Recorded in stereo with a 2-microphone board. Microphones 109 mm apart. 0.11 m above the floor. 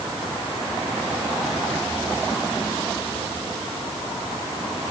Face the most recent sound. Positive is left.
No sound to turn to.